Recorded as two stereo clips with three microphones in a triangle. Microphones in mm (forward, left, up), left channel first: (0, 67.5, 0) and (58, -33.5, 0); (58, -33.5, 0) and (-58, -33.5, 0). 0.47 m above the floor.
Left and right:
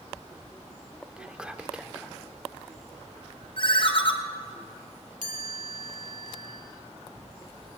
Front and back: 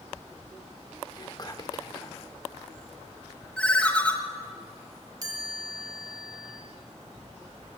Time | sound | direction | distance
1.2 | whispering | 15° left | 0.9 m
3.6 | a ringtone | 80° left | 1.7 m
5.2 | a chime | 120° left | 1.6 m